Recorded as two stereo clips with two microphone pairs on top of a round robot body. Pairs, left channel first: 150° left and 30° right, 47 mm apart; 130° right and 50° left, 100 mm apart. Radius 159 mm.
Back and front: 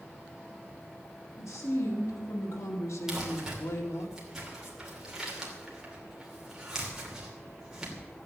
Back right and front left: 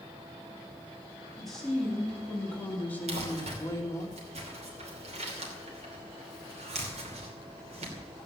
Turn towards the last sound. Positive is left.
turn(degrees=50)